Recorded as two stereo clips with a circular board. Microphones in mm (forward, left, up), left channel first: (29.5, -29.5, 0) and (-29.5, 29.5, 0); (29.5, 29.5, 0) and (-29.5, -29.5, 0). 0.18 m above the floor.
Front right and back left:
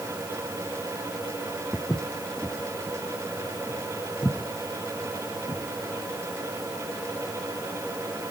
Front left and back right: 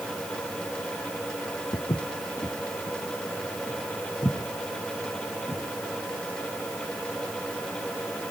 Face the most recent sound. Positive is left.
turn(degrees=5)